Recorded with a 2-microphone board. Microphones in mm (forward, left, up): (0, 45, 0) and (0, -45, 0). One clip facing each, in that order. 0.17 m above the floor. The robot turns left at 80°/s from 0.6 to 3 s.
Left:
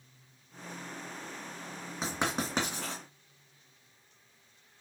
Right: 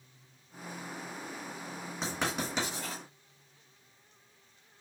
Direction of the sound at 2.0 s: 5° left (ahead or behind).